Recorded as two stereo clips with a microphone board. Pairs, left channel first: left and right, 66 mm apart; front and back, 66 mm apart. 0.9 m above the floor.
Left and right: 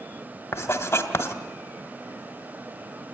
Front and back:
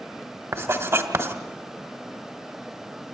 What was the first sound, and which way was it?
Writing, 135° left.